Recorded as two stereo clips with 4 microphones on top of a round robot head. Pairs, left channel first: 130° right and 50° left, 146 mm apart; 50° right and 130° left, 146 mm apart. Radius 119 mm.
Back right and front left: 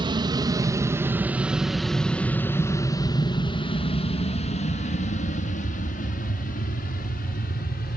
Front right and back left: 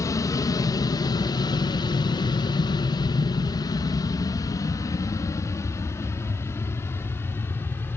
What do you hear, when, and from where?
0.0 s an aircraft: 10° left; by 8.0 s 125° right